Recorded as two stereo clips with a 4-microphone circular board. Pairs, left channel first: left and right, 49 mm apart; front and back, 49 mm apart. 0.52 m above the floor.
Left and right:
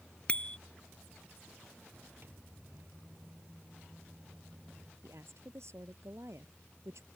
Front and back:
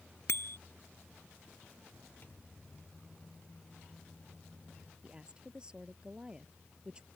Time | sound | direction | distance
0.3 | a bicycle bell | 25° left | ?
2.2 | a microwave | 50° right | ?
5.0 | a woman speaking | 110° right | ?